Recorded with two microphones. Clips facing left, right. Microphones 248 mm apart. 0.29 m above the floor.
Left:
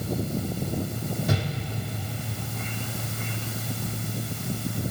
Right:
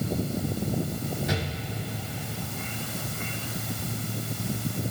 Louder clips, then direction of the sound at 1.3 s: Left 2 dB; 50° left (ahead or behind).